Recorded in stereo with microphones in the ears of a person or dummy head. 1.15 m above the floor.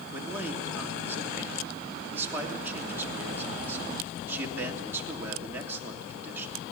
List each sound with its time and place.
0.1 s a man speaking: 15° right (ahead or behind), 3 m